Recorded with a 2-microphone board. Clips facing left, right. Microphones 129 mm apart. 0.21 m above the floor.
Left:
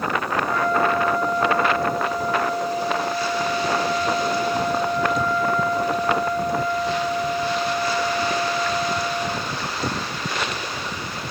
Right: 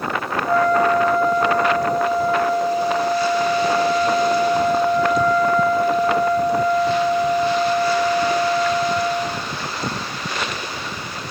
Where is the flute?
35° right (ahead or behind), 1.5 m.